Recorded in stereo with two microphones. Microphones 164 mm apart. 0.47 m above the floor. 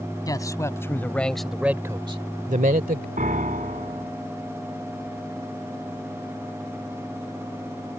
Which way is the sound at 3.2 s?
55° right (ahead or behind).